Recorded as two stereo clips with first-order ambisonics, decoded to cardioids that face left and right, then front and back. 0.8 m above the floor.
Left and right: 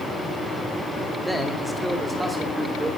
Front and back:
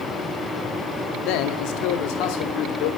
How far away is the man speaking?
About 2 m.